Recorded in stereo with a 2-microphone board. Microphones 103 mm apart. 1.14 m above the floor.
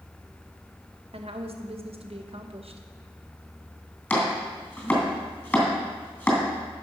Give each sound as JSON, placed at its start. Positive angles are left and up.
{"t": 1.1, "sound": "a woman speaking", "side_deg": -75, "distance_m": 0.9}
{"t": 4.1, "sound": "chopping", "side_deg": 20, "distance_m": 2.5}